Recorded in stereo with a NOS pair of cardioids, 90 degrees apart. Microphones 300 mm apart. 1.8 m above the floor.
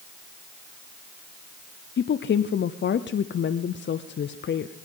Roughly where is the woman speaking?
Ahead left.